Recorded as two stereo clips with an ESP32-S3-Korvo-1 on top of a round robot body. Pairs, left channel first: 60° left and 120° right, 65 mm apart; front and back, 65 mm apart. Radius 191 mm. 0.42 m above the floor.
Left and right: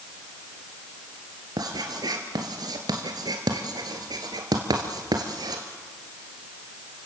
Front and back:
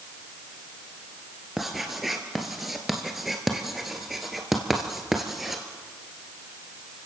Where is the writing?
95° right, 1.7 m.